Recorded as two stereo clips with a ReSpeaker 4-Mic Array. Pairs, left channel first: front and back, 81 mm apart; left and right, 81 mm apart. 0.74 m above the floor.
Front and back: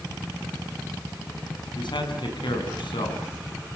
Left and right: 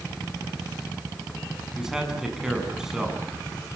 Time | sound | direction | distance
1.8 | a man speaking | 10° right | 7 m